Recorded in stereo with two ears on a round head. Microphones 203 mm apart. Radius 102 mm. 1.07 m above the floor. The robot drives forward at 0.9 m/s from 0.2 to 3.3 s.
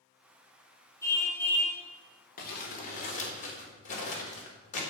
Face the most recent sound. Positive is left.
turn(degrees=35)  # may be behind; listen again after turning